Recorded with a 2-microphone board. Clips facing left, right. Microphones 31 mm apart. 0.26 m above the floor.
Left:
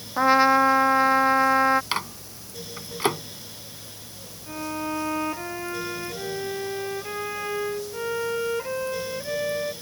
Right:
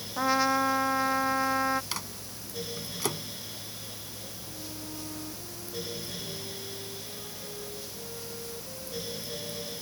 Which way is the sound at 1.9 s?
40° left (ahead or behind).